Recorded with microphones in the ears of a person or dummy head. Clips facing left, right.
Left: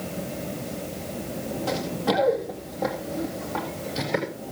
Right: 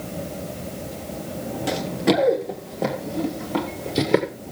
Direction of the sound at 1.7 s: 20° right (ahead or behind).